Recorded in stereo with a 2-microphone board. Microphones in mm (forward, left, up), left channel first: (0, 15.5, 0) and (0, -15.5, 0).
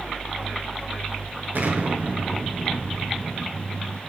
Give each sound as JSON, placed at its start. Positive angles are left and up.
{"t": 1.6, "sound": "an explosion", "side_deg": -60, "distance_m": 4.0}